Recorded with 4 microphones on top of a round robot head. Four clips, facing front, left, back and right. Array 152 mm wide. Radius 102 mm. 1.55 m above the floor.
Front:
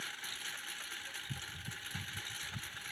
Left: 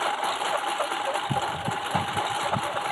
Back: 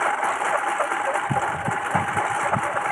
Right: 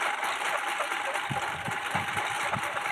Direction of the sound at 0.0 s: 155° left.